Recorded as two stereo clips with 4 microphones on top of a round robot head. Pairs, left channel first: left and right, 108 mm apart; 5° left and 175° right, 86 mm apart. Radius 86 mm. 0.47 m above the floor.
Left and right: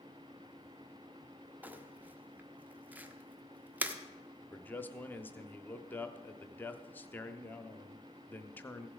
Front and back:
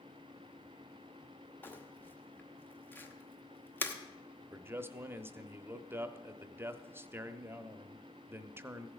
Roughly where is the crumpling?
Ahead right.